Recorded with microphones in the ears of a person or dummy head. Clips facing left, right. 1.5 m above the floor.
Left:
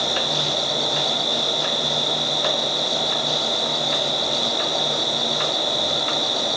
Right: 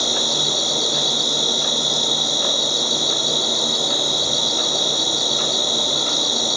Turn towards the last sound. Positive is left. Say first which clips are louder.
# even
turn(degrees=-65)  # may be behind; listen again after turning